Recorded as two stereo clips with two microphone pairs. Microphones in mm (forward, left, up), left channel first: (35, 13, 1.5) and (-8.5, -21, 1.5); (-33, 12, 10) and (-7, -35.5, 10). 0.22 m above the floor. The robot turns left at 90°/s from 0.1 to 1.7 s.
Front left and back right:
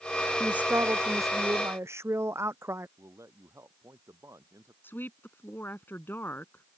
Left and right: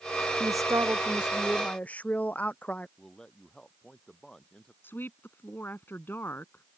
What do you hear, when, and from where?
0.4 s a man speaking: 60° right; by 2.9 s straight behind
3.0 s a man speaking: 165° right
4.8 s a woman speaking: 80° left